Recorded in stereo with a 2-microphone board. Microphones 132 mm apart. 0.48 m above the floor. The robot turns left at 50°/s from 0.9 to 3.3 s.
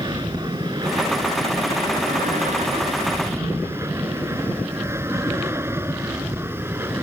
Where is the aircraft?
30° right (ahead or behind); by 7.0 s 20° right (ahead or behind).